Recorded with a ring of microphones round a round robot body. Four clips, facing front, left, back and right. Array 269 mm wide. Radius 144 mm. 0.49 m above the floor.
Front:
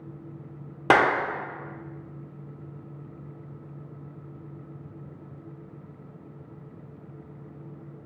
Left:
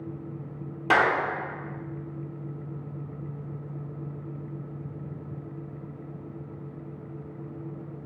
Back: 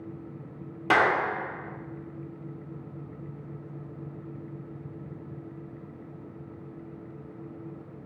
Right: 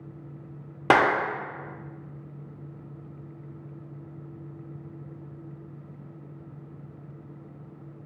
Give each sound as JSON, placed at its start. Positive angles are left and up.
{"t": 0.9, "sound": "a clap", "azimuth_deg": -45, "distance_m": 0.7}